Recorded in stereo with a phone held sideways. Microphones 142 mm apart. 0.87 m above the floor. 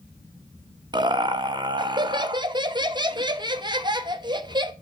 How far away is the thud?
No thud in this recording.